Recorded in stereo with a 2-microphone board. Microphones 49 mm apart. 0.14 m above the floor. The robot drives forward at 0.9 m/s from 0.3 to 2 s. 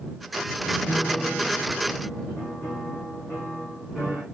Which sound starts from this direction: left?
A piano, at 0.9 s.